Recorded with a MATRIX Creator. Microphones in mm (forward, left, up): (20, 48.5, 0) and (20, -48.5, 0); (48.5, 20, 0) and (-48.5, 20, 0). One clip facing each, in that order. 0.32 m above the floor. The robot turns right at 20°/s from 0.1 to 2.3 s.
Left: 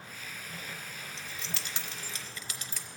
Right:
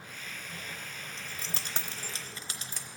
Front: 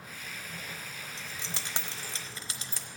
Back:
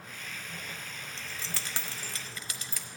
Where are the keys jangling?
65° right, 0.8 m; by 2.9 s 45° right, 0.8 m.